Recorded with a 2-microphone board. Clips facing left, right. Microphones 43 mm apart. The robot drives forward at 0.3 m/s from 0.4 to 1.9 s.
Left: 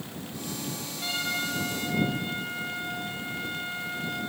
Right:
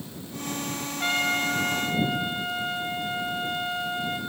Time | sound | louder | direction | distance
1.0 | a trumpet | right 6 dB | 45° right (ahead or behind) | 2.5 m